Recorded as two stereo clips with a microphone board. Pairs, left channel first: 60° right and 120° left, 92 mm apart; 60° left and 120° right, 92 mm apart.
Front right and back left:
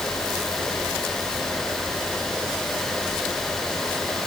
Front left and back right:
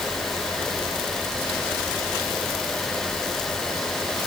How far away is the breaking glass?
No breaking glass in this recording.